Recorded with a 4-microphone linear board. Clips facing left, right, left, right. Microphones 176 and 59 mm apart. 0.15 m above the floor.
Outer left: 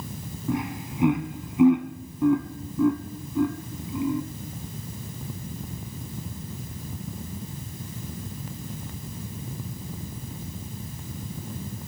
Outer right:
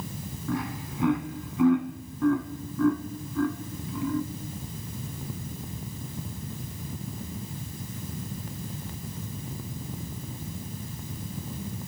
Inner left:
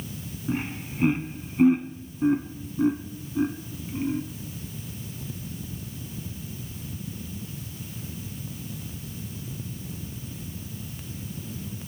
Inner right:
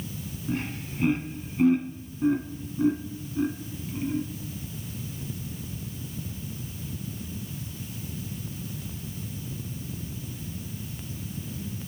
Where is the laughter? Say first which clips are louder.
Outer left 3 dB, inner left 2 dB; 20° left (ahead or behind), 1.1 m.